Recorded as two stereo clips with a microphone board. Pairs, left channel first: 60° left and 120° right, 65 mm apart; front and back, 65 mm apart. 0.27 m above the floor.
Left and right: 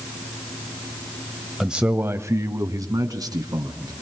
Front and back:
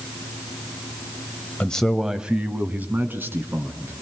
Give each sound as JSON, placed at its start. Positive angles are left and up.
{"t": 1.6, "sound": "a man speaking", "azimuth_deg": -40, "distance_m": 1.0}